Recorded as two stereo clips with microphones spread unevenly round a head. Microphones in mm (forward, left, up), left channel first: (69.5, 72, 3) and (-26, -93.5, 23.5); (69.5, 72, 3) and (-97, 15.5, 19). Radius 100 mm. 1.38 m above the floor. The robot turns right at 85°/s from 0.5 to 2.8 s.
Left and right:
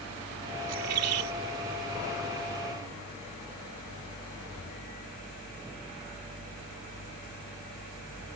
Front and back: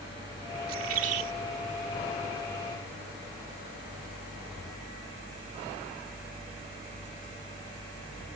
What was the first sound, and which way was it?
A bird, 155° right.